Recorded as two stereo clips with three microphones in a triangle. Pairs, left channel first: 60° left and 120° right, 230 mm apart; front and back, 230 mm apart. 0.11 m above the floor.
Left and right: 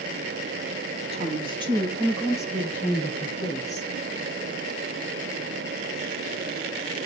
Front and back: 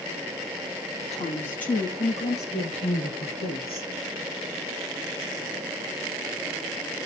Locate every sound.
1.0 s a woman speaking: 60° right, 3.5 m; by 3.9 s 10° left, 3 m